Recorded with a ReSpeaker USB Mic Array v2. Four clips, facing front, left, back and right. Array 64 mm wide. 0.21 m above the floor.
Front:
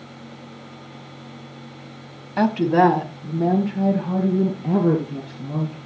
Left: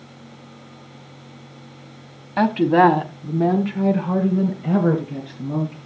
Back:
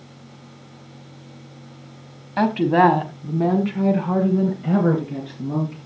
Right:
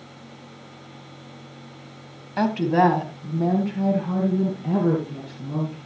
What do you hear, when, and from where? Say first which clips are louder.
2.4 s a woman speaking: left 4 dB, even; 115° left, 1.0 m; by 5.8 s 150° left, 3 m